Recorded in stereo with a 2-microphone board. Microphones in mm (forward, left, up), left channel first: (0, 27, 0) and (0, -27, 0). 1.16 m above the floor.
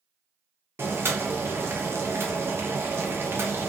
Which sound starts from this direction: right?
Boiling, at 0.8 s.